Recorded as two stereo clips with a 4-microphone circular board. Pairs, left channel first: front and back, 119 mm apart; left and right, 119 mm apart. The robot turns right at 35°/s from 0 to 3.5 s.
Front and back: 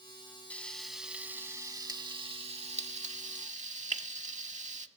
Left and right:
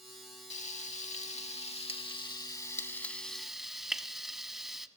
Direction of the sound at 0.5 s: 80° left.